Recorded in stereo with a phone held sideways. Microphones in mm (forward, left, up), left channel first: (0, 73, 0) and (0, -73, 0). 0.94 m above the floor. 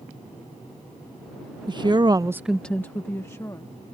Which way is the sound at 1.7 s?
30° right (ahead or behind).